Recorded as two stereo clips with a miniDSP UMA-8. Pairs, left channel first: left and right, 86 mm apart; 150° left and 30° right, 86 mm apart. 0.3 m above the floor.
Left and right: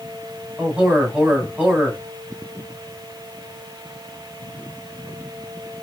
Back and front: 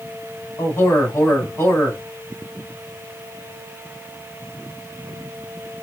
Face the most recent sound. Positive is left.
turn(degrees=-160)